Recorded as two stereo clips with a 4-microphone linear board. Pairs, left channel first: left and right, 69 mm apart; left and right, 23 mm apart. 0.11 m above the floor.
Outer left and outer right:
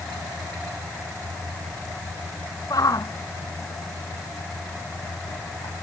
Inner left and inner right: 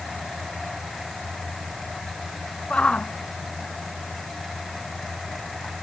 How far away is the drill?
I don't hear a drill.